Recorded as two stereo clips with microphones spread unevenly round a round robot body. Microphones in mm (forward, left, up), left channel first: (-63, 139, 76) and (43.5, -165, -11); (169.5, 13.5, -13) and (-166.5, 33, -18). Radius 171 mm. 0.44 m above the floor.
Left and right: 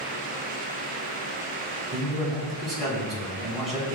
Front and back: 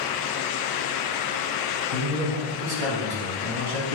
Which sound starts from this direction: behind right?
A man speaking, at 1.9 s.